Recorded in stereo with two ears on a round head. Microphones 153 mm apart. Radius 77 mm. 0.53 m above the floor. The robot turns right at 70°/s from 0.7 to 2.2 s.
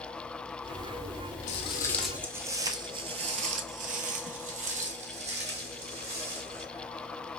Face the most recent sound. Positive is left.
turn(degrees=-35)  # may be behind; listen again after turning